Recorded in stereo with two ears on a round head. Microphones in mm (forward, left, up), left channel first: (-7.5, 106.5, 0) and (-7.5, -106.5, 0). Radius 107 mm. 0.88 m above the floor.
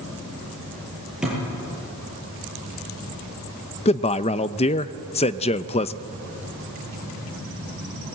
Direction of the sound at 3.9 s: 25° left (ahead or behind).